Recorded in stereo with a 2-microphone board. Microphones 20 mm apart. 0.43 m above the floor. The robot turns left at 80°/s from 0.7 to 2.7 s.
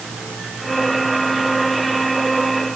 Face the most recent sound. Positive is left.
No sound to turn to.